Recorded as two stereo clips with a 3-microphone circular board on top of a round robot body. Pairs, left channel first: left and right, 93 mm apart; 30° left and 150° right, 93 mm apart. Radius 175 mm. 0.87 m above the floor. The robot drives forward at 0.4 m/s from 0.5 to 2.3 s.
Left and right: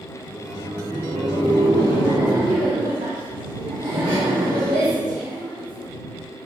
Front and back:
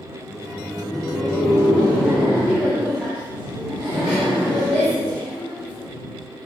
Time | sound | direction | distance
0.2 | laughter | 55° right | 3 m